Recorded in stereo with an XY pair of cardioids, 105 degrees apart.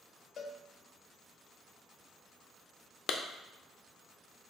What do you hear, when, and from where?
0.4 s a cowbell: 60° left, 0.6 m
3.1 s a clap: 55° left, 0.5 m